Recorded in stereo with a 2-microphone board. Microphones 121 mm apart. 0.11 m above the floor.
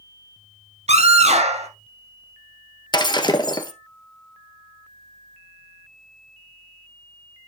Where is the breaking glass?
35° left (ahead or behind), 1.3 m.